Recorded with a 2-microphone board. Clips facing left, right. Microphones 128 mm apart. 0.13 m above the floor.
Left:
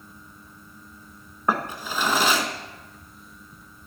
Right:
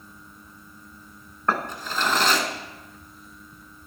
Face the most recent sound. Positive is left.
turn(degrees=10)  # may be behind; listen again after turning